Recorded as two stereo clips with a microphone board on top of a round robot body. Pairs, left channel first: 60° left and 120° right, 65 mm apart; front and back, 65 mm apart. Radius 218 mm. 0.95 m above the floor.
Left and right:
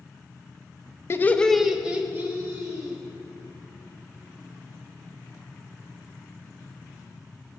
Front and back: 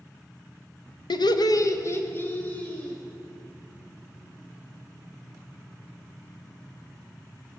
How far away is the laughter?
About 0.8 m.